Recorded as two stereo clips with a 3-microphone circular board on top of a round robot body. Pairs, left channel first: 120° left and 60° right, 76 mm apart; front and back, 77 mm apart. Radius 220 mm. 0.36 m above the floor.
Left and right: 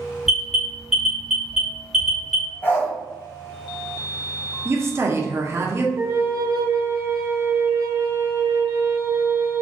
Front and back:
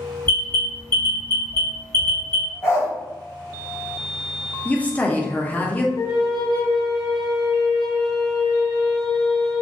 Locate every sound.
0.3 s an alarm: 25° left, 1.8 m
2.6 s a dog barking: 55° left, 0.8 m
4.7 s a woman speaking: 55° right, 0.8 m
6.0 s a flute: 15° right, 0.9 m